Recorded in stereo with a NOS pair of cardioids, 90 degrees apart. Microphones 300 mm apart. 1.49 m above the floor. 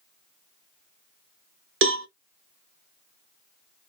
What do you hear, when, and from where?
1.8 s a cowbell: 45° right, 0.9 m